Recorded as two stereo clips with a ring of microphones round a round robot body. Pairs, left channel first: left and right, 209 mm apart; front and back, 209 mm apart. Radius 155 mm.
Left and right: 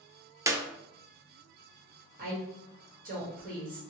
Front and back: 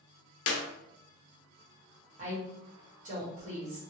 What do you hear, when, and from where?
0.5 s a clap: 15° right, 0.6 m
2.2 s a woman speaking: 130° right, 1.5 m